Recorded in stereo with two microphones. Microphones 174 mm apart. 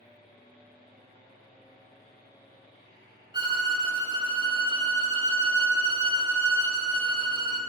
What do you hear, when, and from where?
3.3 s a violin: 25° right (ahead or behind), 0.9 m